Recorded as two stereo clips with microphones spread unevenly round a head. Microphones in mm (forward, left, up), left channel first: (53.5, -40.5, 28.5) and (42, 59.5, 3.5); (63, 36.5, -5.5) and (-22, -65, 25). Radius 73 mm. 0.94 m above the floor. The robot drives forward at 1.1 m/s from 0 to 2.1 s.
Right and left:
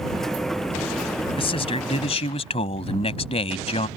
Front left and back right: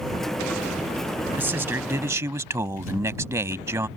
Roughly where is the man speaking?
Ahead right.